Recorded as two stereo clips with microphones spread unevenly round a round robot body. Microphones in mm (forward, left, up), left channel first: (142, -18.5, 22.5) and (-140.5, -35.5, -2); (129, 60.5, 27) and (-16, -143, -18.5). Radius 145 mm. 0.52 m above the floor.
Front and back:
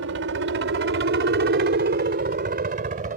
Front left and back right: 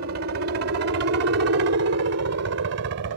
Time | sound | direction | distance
0.0 | a helicopter | 150° right | ?